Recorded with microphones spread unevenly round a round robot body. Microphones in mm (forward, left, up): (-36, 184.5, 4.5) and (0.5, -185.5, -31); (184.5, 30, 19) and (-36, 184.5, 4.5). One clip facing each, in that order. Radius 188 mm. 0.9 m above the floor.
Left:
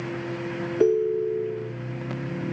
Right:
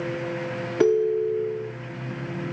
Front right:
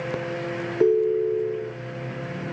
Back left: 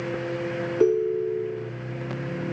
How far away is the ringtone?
About 1.1 m.